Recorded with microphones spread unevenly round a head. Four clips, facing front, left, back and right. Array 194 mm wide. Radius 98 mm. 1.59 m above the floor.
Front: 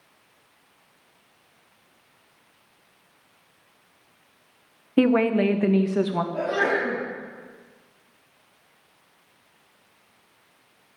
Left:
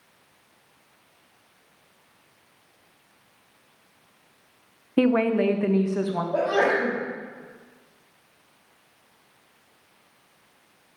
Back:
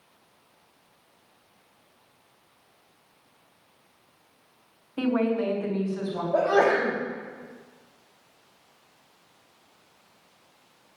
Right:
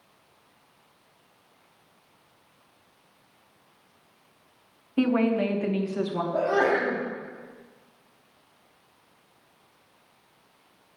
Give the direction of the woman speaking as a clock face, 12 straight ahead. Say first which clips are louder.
Left 3 dB, front 6 dB; 11 o'clock.